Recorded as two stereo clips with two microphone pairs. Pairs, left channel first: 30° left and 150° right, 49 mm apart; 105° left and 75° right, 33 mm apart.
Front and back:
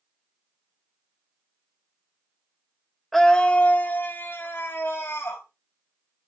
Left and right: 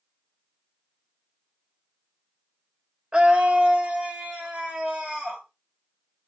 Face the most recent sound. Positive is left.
turn(degrees=-10)